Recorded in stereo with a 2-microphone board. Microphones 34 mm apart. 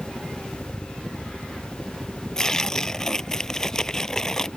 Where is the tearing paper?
15° left (ahead or behind).